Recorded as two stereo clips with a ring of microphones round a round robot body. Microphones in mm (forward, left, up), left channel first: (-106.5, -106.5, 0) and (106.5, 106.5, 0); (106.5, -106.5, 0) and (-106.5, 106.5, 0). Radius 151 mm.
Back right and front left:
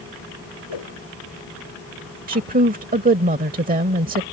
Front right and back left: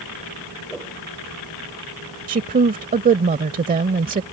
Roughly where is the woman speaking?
Left.